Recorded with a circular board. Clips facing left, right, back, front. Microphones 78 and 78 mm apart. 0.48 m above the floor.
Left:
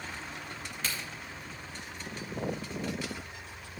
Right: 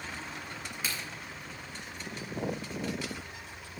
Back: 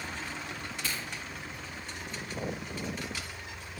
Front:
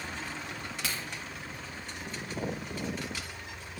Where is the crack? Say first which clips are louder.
Even, even; 10° right, 3 m.